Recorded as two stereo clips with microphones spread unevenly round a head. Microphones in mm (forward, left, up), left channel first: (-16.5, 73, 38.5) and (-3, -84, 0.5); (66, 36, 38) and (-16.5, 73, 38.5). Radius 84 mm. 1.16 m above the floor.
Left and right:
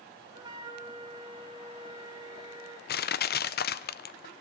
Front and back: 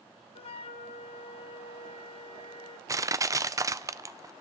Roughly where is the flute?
Ahead.